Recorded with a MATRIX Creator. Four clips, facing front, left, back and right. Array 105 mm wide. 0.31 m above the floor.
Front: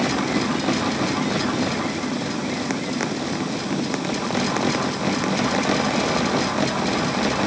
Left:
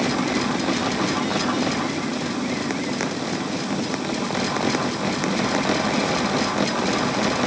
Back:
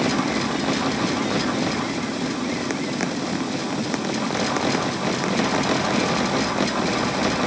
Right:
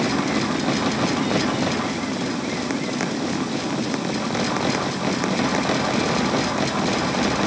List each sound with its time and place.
Only background noise.